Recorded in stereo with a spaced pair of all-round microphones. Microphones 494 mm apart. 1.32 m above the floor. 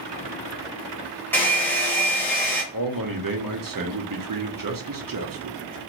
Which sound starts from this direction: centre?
A hair dryer, at 1.3 s.